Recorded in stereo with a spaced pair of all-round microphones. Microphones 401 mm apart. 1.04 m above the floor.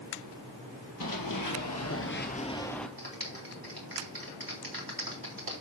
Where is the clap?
55° right (ahead or behind), 3.5 m.